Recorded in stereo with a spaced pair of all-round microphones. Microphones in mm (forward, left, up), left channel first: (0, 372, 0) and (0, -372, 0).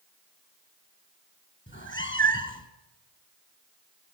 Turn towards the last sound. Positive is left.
turn(degrees=15)  # may be behind; listen again after turning